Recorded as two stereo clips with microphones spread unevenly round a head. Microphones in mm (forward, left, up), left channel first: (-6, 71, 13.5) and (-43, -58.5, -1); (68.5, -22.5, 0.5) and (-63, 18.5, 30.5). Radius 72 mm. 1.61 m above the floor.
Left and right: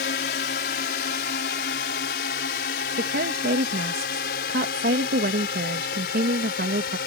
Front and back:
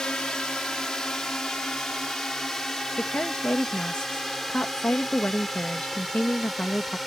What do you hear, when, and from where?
0.0 s a drone: 70° left; by 7.1 s 75° left
3.0 s a woman speaking: 100° right